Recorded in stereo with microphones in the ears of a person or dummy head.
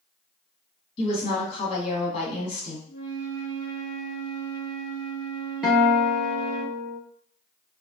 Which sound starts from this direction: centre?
A guitar, at 5.6 s.